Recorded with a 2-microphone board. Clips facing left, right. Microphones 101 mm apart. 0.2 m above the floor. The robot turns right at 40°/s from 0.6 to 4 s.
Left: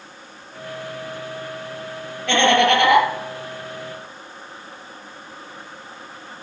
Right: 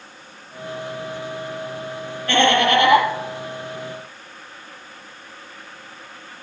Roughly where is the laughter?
Left.